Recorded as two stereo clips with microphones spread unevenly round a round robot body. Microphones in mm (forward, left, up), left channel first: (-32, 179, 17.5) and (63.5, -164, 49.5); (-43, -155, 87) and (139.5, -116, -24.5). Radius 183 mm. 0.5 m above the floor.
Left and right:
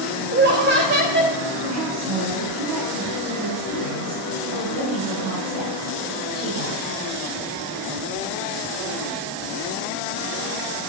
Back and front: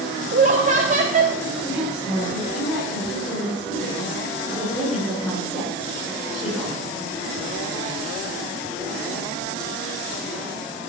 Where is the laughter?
15° right, 2 m.